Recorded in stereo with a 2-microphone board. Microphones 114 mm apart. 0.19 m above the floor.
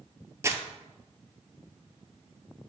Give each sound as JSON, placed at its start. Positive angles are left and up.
{"t": 0.4, "sound": "crumpling", "side_deg": -25, "distance_m": 0.7}